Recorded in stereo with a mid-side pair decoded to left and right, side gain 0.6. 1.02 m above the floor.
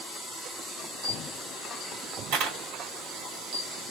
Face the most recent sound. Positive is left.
turn(degrees=-70)